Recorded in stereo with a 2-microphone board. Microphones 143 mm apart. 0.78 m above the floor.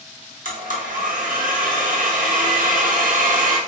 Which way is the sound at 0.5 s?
70° right (ahead or behind).